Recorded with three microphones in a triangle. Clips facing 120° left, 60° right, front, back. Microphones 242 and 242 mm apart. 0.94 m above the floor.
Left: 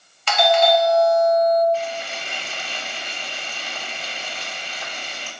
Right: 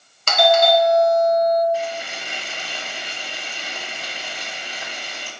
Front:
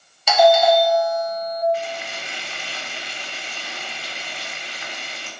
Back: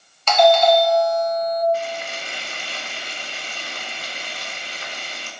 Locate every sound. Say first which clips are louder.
0.3 s a doorbell: right 1 dB, even; 80° right, 1.3 m
1.7 s frying: right 1 dB, back 1 dB; 135° right, 3 m